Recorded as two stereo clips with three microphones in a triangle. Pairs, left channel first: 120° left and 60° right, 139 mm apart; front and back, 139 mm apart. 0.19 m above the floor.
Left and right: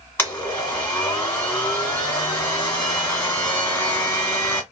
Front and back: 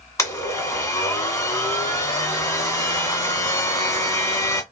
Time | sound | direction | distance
0.2 | a blender | 50° left | 1.5 m